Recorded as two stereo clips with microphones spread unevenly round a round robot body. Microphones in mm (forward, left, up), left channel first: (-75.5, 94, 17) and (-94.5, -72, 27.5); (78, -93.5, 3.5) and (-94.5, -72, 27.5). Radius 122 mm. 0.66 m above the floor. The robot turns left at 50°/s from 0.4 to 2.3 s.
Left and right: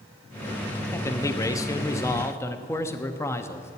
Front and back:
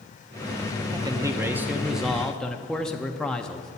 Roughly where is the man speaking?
Behind left.